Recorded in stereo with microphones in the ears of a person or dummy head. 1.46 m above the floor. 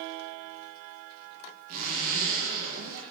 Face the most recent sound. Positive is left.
turn(degrees=-50)  # may be behind; listen again after turning